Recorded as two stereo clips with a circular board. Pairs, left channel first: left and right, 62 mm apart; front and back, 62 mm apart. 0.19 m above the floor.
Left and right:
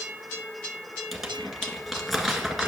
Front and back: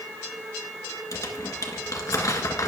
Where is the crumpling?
Straight ahead, 1.6 m.